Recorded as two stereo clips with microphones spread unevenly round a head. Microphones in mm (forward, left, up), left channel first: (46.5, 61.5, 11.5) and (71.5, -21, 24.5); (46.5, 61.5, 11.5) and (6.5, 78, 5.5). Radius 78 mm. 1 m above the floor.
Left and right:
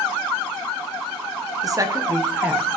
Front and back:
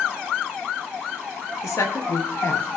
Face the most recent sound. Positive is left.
turn(degrees=10)